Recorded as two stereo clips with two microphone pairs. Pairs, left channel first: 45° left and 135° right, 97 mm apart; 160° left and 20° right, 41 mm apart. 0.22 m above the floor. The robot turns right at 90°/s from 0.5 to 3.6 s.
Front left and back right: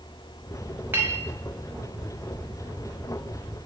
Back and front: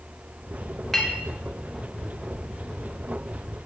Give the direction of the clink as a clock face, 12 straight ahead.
4 o'clock.